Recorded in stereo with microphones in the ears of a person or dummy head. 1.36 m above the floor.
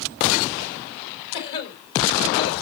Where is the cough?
70° left (ahead or behind), 3.5 m.